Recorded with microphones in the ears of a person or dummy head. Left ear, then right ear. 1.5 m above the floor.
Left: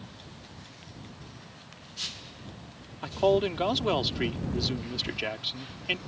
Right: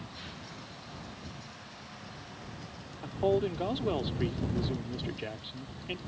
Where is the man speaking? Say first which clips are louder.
Left 5 dB; 60° left (ahead or behind).